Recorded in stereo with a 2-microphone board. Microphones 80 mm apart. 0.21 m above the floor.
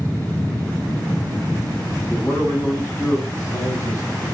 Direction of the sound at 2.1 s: 25° left (ahead or behind).